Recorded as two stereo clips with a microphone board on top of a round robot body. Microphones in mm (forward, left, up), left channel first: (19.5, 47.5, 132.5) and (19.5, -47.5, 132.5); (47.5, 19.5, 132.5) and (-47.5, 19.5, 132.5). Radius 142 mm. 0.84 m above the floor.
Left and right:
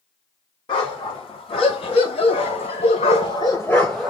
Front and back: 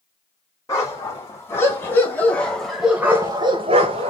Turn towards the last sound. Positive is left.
turn(degrees=-175)